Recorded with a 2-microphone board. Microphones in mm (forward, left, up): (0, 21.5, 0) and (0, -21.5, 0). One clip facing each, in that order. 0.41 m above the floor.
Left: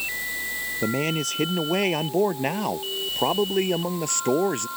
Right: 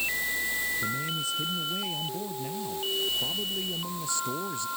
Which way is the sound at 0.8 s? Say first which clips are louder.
Left 6 dB; 70° left (ahead or behind).